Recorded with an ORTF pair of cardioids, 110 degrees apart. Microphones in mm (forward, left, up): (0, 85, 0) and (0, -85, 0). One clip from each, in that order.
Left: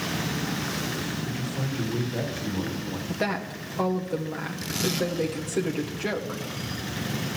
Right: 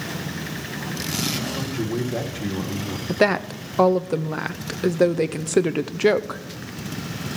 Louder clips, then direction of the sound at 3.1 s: Right 10 dB; 45° right.